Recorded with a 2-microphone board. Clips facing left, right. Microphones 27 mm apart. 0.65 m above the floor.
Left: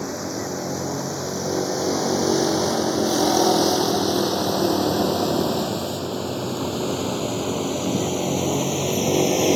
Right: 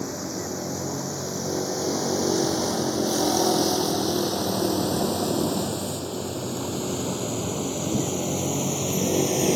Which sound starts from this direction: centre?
A vehicle, at 0.0 s.